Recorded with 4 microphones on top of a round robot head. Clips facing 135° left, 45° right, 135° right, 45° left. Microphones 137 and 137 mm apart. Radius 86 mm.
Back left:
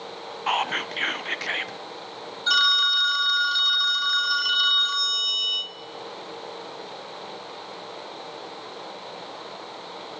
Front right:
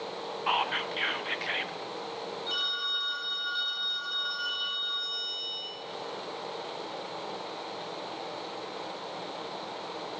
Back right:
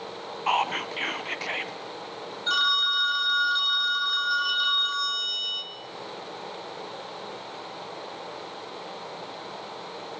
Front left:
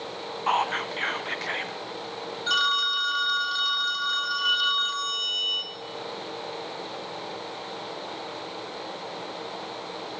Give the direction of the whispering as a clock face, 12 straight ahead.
7 o'clock.